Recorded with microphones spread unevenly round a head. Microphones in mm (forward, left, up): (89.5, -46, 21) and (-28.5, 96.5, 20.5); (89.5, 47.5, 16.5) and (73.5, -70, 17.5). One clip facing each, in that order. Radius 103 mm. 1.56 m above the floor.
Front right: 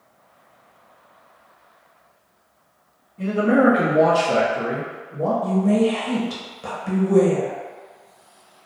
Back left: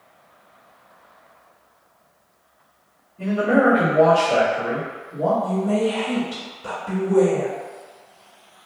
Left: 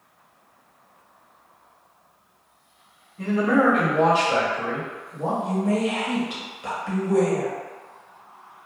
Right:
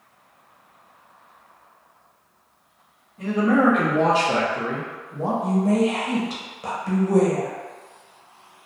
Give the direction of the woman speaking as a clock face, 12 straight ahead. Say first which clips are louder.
Front right 3 dB, right 5 dB; 2 o'clock.